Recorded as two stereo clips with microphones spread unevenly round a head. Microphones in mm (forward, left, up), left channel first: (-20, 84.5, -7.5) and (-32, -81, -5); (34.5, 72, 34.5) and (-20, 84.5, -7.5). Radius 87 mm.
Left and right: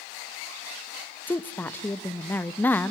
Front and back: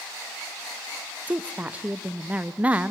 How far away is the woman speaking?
About 0.5 m.